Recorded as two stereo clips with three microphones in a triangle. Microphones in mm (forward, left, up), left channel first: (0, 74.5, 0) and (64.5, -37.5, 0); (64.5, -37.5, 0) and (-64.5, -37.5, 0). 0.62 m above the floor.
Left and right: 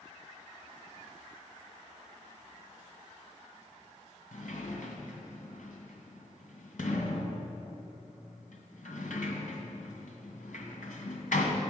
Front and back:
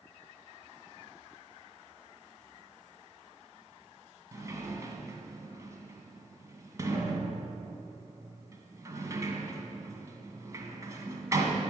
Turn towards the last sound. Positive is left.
turn(degrees=115)